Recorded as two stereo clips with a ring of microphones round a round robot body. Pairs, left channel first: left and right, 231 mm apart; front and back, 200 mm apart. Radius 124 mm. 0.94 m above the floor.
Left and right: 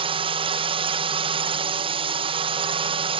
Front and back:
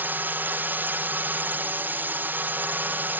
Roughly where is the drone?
Right.